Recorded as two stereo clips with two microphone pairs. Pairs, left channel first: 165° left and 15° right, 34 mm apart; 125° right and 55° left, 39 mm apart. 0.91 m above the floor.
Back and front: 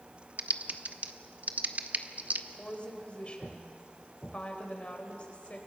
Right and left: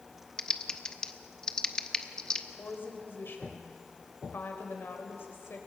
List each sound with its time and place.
0.4 s typing on a keyboard: 55° right, 1.0 m
2.6 s a woman speaking: 140° right, 4 m